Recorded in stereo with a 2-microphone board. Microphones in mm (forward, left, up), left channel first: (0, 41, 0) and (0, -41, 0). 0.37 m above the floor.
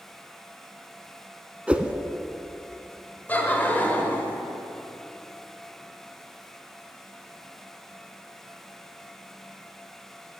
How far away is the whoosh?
About 0.5 m.